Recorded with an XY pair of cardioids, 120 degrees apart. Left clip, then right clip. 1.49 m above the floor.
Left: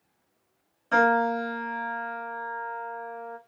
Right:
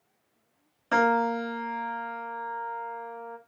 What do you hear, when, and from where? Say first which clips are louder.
0.9 s a piano: left 2 dB; 30° right, 0.9 m